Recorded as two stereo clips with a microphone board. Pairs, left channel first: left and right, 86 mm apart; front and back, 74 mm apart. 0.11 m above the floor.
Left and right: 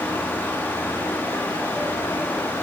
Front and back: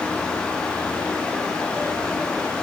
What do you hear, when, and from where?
Only background noise.